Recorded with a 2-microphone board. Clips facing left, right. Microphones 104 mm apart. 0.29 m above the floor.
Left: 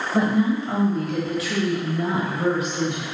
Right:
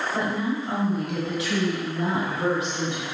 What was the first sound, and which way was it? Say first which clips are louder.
A woman speaking: left 9 dB; 10° left (ahead or behind).